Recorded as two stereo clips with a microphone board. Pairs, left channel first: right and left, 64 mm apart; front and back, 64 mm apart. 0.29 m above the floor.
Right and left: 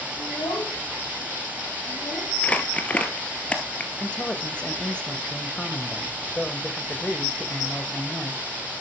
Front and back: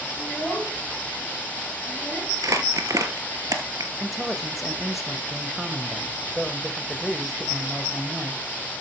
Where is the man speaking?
95° right, 1.1 m.